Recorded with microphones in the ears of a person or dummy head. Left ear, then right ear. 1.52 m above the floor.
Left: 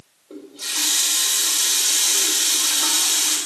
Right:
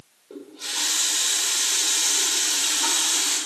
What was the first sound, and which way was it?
A running tap, centre (ahead or behind).